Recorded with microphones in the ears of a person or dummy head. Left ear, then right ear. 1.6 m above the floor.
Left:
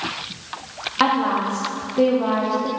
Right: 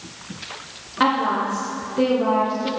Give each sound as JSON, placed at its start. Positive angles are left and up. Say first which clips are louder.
{"t": 1.0, "sound": "a woman speaking", "louder": "even", "side_deg": 25, "distance_m": 1.5}